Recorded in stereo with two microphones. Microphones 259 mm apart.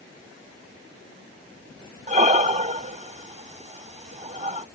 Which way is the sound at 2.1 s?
25° right (ahead or behind).